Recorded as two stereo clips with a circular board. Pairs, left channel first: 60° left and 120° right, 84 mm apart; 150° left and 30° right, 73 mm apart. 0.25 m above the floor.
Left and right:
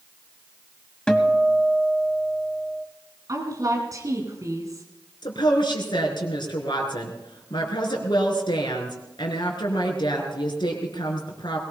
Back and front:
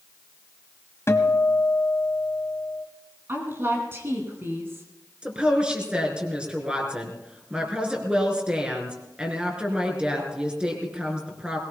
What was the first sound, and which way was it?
A guitar, 135° left.